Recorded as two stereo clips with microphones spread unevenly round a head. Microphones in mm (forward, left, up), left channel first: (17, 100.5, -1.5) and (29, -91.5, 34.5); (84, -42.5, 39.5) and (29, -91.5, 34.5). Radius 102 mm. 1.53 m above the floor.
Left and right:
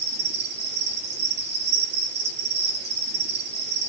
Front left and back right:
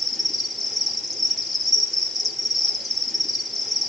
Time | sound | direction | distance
0.0 | an insect | 50° right | 5.5 m